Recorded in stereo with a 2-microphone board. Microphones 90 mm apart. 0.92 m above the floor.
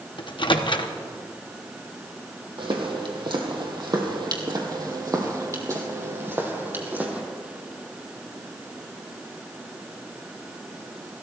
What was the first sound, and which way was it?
A microwave, 65° left (ahead or behind).